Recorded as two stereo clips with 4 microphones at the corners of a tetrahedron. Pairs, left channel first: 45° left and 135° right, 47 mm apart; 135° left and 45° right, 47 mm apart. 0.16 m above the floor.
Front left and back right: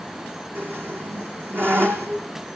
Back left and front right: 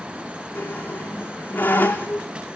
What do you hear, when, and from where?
0.6 s a squeak: 170° right, 3 m